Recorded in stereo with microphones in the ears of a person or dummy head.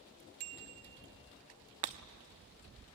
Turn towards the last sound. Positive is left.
turn(degrees=-45)  # may be behind; listen again after turning